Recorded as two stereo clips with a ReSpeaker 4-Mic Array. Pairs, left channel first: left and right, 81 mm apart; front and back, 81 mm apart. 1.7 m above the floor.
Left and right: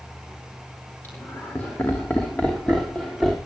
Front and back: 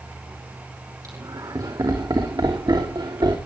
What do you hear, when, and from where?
1.0 s laughter: 150° left, 3 m; by 3.4 s 175° left, 3.5 m